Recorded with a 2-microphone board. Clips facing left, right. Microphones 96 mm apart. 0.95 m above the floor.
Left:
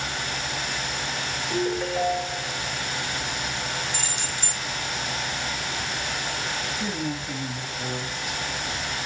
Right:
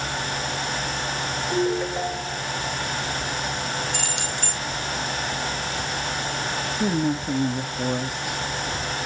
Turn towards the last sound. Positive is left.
turn(degrees=-50)  # may be behind; listen again after turning